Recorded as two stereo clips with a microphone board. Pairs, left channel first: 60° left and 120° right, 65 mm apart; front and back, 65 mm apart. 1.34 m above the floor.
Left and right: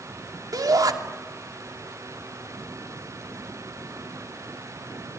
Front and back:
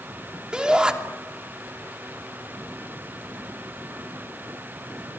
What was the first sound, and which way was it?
A shout, 105° right.